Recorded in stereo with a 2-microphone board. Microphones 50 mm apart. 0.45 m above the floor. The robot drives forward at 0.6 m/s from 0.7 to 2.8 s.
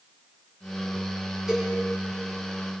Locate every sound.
1.5 s a cowbell: 10° right (ahead or behind), 6 m